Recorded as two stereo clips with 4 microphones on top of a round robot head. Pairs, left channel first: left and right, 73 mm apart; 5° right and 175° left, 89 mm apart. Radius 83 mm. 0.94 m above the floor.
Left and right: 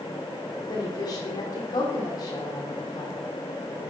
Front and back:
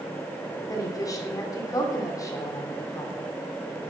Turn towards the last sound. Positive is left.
turn(degrees=45)